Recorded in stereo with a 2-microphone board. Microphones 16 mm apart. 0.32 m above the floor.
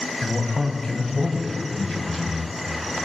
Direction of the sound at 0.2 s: 50° left (ahead or behind).